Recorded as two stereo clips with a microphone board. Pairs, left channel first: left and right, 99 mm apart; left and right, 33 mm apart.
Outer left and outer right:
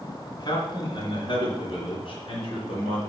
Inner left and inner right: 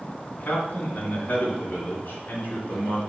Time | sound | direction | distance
0.3 | a man speaking | 45° left (ahead or behind) | 2.5 m